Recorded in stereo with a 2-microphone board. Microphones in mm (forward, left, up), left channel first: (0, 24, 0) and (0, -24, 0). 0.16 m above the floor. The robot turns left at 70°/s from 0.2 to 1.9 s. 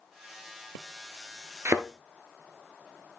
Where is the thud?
60° right (ahead or behind), 1.0 m; by 1.9 s 65° right (ahead or behind), 1.0 m.